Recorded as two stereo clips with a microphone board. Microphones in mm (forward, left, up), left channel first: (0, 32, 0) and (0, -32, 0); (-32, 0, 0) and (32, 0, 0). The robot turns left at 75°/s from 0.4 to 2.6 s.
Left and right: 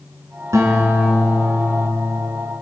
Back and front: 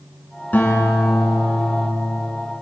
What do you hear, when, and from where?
0.5 s a guitar: 120° right, 2.5 m; by 2.2 s 115° left, 2.5 m